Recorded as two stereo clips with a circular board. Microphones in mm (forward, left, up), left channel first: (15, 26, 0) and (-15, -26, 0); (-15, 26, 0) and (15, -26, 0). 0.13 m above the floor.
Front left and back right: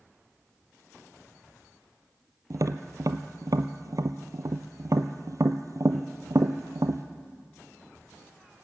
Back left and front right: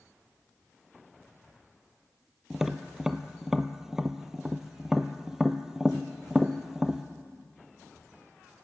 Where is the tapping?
140° right, 0.7 m.